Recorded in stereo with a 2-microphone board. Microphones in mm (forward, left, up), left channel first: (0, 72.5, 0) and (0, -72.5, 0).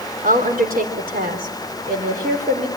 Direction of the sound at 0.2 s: 80° right.